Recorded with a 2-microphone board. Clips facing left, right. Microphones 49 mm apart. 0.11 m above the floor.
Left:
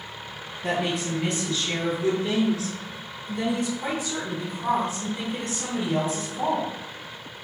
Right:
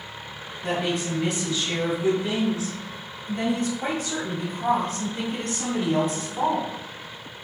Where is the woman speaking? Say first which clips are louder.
Even; 10° left (ahead or behind), 1.5 m; by 6.7 s 60° right (ahead or behind), 2.5 m.